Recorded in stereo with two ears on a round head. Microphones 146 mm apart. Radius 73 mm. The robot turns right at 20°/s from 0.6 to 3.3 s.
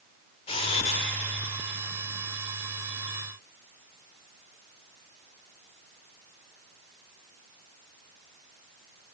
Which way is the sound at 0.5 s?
40° left (ahead or behind).